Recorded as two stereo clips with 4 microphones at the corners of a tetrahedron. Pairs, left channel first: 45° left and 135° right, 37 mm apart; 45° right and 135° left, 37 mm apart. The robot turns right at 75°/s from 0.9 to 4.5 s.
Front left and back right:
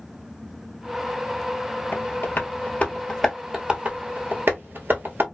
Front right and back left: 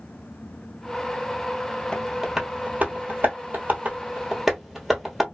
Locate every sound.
1.9 s tapping: 25° left, 1.0 m; by 5.2 s 140° right, 1.0 m